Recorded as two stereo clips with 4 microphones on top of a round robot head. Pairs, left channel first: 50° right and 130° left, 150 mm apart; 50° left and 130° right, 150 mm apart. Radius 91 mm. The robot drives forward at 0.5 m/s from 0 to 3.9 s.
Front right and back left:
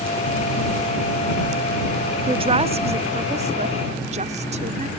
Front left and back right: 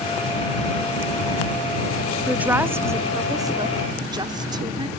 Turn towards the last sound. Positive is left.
turn(degrees=170)